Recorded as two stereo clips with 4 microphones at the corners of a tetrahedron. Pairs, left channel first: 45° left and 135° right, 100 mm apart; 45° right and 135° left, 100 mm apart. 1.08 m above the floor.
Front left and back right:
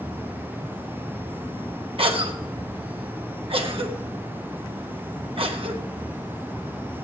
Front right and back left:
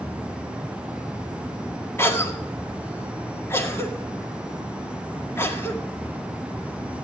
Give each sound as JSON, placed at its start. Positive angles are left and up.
{"t": 2.0, "sound": "a cough", "azimuth_deg": -110, "distance_m": 1.9}